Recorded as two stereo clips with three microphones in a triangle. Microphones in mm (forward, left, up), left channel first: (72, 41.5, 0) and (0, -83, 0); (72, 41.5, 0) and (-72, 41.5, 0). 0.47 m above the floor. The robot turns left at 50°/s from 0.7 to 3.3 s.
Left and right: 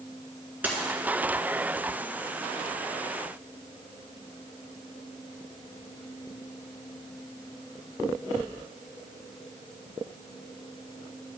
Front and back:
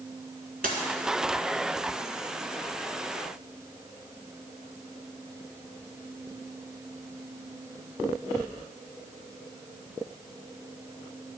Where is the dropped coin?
160° left, 1.5 m; by 0.9 s 155° left, 1.5 m.